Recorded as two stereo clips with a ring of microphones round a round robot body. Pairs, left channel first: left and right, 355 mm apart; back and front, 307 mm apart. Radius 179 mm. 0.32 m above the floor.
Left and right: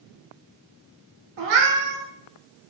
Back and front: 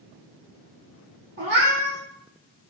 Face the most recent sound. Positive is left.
turn(degrees=-60)